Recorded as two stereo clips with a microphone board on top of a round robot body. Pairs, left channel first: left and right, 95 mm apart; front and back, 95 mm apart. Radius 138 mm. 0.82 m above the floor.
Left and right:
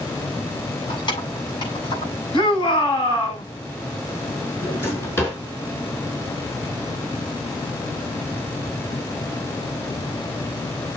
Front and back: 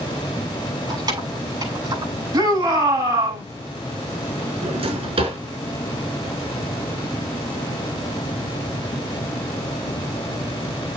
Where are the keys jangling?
130° left, 7 m.